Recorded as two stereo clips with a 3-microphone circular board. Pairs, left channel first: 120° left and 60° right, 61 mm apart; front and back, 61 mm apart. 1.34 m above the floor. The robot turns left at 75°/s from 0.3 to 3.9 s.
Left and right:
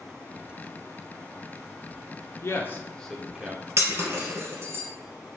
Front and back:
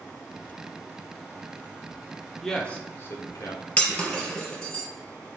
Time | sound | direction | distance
2.4 | a man speaking | 85° left | 0.6 m
3.8 | breaking glass | 55° right | 1.7 m